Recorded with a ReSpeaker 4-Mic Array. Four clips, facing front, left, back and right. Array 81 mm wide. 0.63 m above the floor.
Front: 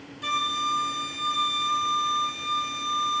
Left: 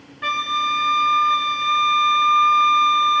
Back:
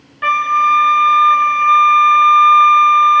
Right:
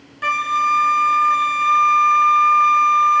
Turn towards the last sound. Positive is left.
turn(degrees=-170)